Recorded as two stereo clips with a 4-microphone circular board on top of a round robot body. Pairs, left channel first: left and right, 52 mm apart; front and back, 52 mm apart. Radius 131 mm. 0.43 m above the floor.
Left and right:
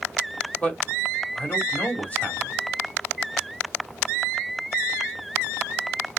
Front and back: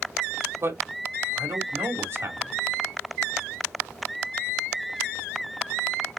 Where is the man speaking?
155° left, 2.5 m.